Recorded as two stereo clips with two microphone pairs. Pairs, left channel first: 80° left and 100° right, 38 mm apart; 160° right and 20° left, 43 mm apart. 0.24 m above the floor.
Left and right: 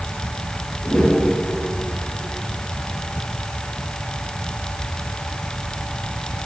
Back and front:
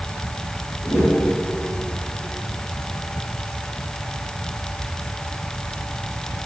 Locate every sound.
0.8 s a whoosh: 170° left, 4 m